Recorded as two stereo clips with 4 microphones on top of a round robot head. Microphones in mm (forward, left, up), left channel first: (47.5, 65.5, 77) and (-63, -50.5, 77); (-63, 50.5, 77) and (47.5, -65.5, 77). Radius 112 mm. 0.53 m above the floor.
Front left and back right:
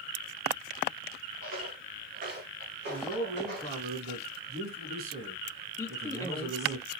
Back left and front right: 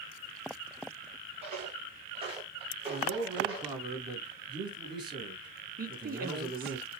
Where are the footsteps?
100° right, 6 m; by 3.8 s 110° right, 6.5 m.